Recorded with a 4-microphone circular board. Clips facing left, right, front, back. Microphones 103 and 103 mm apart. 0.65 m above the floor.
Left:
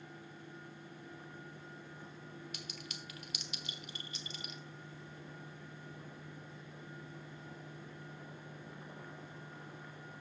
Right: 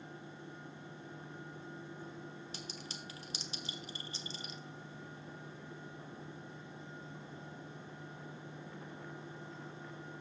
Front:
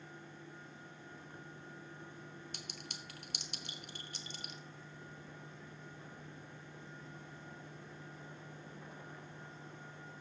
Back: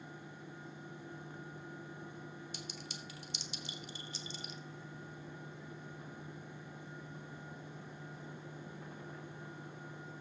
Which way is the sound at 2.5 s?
35° right.